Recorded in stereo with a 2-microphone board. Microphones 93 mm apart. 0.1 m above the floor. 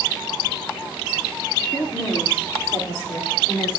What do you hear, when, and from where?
1.7 s a woman speaking: 40° left (ahead or behind), 3 m; by 3.8 s 25° left (ahead or behind), 4.5 m